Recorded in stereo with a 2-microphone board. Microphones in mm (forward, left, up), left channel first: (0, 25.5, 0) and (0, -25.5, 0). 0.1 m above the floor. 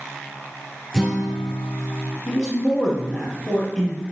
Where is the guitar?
Centre (ahead or behind), 2.0 m.